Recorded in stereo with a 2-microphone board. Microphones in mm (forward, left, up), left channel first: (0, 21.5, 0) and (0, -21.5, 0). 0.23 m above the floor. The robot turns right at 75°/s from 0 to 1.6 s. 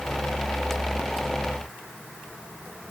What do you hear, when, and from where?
Only background noise.